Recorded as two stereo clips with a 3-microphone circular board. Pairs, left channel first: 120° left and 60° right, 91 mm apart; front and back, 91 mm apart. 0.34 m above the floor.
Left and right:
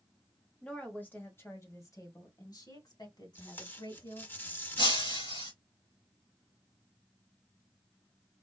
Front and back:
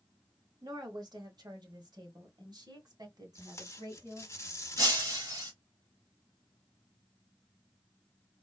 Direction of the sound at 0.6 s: 165° right.